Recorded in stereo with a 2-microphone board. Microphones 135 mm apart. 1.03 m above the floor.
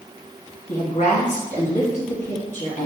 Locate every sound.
0.7 s a woman speaking: 55° left (ahead or behind), 1.5 m